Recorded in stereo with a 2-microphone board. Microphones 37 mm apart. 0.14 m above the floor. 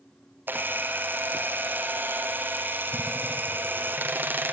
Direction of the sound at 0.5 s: 60° right (ahead or behind).